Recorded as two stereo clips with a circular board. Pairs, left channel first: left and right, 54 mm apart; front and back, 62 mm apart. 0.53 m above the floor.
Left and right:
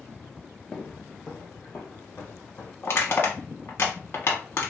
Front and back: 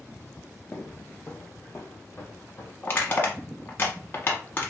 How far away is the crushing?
About 0.9 m.